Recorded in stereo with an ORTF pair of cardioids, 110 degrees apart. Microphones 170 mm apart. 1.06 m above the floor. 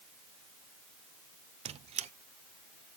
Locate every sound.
1.6 s a squeak: 40° right, 0.8 m